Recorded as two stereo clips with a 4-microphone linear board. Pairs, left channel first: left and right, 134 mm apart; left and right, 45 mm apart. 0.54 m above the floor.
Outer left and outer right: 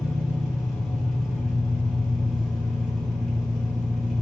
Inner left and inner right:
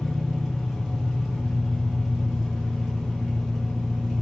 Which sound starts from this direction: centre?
An engine running, at 0.0 s.